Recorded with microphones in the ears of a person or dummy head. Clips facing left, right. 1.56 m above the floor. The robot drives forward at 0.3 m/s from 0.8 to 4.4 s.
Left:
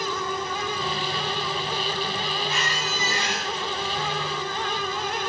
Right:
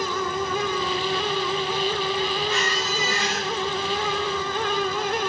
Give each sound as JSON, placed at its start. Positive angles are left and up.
{"t": 2.5, "sound": "a squeak", "side_deg": 20, "distance_m": 1.9}